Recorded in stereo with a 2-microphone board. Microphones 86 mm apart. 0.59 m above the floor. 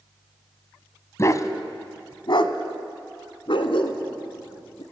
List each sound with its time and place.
1.2 s a dog barking: 35° left (ahead or behind), 1.1 m; by 4.8 s 75° left (ahead or behind), 2.5 m